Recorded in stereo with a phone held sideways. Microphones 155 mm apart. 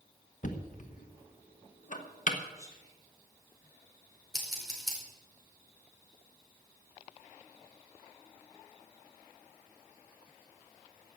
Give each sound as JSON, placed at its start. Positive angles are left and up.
{"t": 0.4, "sound": "knocking", "side_deg": 55, "distance_m": 1.4}
{"t": 2.6, "sound": "whispering", "side_deg": -20, "distance_m": 4.5}
{"t": 4.3, "sound": "scissors", "side_deg": 0, "distance_m": 5.0}